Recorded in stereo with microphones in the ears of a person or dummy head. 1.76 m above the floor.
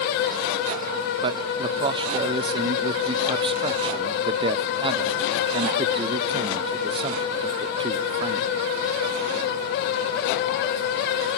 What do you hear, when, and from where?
1.2 s a man speaking: 30° right (ahead or behind), 0.6 m